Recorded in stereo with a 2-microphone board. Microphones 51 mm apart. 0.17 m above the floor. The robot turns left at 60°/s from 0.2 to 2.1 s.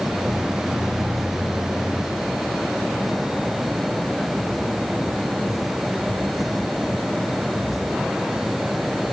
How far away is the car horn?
I don't hear a car horn.